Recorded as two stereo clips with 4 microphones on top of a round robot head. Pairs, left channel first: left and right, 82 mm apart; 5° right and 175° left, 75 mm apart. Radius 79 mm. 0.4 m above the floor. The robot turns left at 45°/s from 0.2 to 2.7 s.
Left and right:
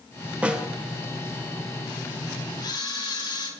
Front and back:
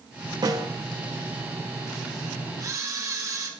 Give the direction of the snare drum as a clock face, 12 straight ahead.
5 o'clock.